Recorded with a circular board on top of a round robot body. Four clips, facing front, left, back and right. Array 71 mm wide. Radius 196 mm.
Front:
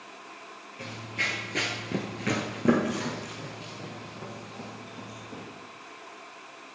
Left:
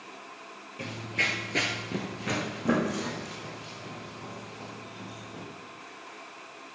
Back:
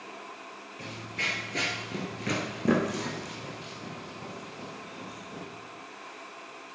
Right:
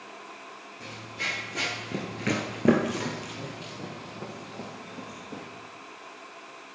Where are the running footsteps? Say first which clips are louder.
Left 5 dB, front 2 dB; 85° left, 1.1 m; by 5.4 s 85° right, 3 m.